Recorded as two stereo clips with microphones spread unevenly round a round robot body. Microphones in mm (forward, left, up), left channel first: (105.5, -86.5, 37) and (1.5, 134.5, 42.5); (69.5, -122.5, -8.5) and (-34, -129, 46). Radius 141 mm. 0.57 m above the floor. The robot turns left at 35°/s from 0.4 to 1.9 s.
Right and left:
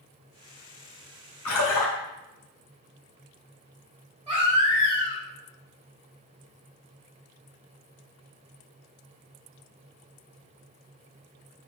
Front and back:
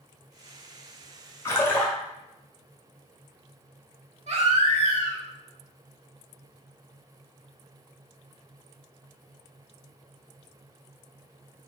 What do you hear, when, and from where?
1.4 s a splash: 55° right, 1.4 m; by 1.9 s 70° right, 1.4 m
4.3 s a baby crying: 175° right, 1.5 m